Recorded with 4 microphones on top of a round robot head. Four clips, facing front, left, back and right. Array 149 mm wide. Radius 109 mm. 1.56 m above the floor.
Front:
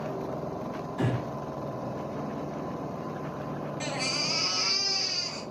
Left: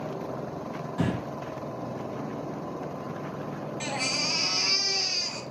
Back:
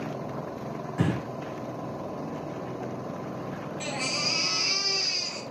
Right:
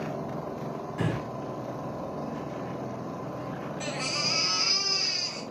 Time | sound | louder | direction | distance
1.0 | breathing | left 2 dB, back 2 dB | 145° left | 2 m
3.8 | a baby crying | left 2 dB, even | 95° left | 4 m